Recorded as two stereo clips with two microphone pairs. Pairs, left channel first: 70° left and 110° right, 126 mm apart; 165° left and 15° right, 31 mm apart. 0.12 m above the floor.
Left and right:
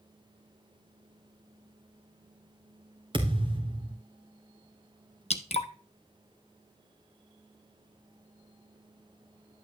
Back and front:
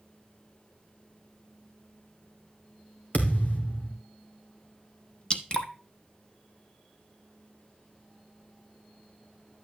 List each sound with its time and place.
3.1 s a thud: 160° right, 2.5 m
5.3 s dripping: 100° left, 0.9 m